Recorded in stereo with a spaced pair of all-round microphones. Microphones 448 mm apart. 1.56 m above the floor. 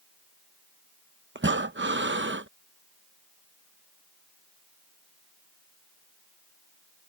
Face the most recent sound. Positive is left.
turn(degrees=-25)  # may be behind; listen again after turning